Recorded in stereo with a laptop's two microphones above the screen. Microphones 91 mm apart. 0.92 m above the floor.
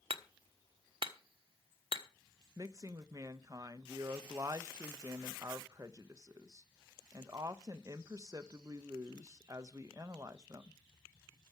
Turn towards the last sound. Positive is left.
turn(degrees=-40)  # may be behind; listen again after turning